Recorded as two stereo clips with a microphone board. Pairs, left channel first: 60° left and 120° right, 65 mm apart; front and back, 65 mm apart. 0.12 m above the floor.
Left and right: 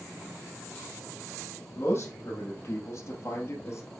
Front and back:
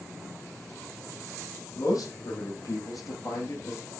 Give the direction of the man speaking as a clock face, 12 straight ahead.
12 o'clock.